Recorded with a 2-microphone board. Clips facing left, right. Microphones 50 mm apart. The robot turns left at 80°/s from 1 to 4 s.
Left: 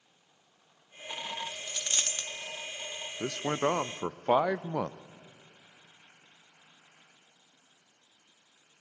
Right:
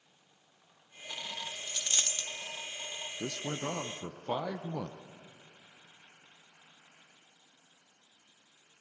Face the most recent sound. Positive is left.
turn(degrees=70)